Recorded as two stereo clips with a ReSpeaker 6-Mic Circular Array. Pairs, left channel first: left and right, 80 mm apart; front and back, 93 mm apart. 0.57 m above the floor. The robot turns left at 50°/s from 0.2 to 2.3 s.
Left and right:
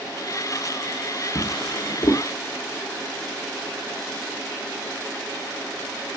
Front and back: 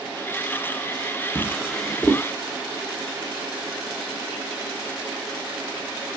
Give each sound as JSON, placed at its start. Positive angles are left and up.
{"t": 1.4, "sound": "a drawer", "azimuth_deg": 105, "distance_m": 0.8}